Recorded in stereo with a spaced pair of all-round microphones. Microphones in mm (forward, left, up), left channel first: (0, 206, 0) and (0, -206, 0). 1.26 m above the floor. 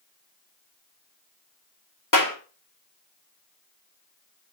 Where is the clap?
45° left (ahead or behind), 3 m.